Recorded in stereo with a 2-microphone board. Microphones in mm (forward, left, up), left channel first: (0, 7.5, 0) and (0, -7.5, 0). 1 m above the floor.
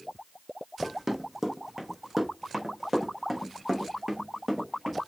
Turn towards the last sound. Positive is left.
turn(degrees=-10)  # may be behind; listen again after turning